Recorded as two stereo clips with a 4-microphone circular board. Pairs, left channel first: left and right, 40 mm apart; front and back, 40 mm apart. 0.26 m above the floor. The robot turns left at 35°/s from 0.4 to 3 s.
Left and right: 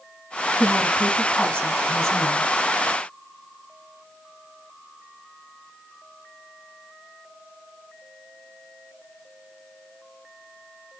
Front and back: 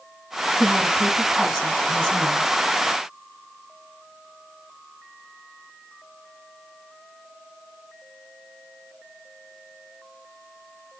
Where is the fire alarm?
No fire alarm in this recording.